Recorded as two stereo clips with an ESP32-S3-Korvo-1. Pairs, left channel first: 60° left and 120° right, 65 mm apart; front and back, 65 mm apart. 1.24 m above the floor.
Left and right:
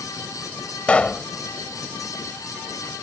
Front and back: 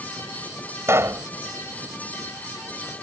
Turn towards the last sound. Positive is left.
turn(degrees=130)